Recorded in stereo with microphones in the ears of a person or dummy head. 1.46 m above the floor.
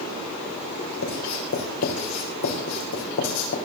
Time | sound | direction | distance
1.0 | writing | 75° left (ahead or behind) | 4.5 m